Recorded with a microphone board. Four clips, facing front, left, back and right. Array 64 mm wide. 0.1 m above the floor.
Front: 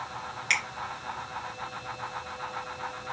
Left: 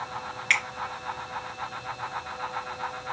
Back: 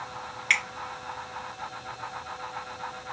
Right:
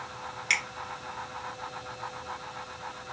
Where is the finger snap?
125° left, 1.3 m.